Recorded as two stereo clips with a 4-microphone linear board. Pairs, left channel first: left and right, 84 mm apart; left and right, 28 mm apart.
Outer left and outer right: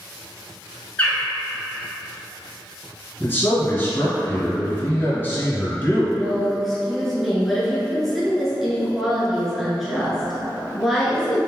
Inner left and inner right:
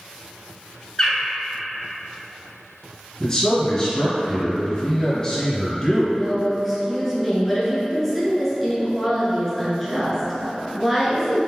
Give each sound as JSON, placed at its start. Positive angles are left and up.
{"t": 1.0, "sound": "a bird", "side_deg": 20, "distance_m": 1.4}
{"t": 3.2, "sound": "a man speaking", "side_deg": 25, "distance_m": 1.9}
{"t": 6.1, "sound": "a woman speaking", "side_deg": 0, "distance_m": 1.5}